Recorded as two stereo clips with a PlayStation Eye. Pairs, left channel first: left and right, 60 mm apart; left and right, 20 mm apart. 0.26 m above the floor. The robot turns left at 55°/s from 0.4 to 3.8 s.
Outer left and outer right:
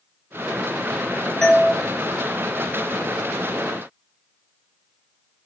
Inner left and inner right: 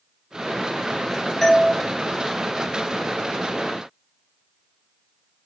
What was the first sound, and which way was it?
A doorbell, 10° left (ahead or behind).